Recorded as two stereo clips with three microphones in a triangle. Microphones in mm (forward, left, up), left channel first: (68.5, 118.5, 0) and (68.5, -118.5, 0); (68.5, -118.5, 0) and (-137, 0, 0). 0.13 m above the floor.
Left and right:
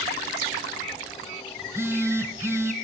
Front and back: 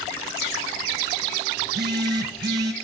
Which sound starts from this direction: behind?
A phone buzzing, at 1.6 s.